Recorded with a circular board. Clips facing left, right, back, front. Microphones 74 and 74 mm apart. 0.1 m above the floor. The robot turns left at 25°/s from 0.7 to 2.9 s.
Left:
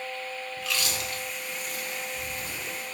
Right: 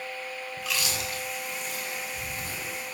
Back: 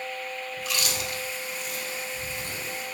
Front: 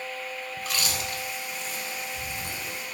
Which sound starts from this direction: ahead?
Chewing, at 0.6 s.